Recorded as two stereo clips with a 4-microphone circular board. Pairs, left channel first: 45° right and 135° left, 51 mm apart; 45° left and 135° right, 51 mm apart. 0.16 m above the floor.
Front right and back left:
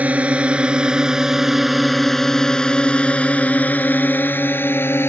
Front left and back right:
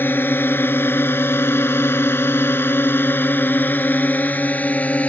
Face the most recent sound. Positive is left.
turn(degrees=-10)